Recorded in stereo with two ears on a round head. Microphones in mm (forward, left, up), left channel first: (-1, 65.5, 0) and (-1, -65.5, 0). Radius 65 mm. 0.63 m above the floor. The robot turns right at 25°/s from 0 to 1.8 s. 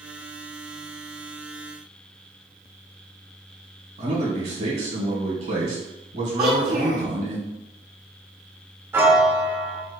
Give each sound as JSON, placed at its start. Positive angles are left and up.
{"t": 4.0, "sound": "a man speaking", "side_deg": -55, "distance_m": 1.7}
{"t": 6.4, "sound": "a child speaking", "side_deg": -50, "distance_m": 1.0}
{"t": 8.9, "sound": "a piano", "side_deg": -15, "distance_m": 0.7}